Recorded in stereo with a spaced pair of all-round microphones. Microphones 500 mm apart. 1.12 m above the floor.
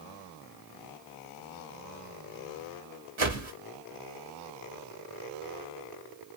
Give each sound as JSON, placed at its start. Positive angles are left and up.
{"t": 3.2, "sound": "a whoosh", "side_deg": -65, "distance_m": 1.1}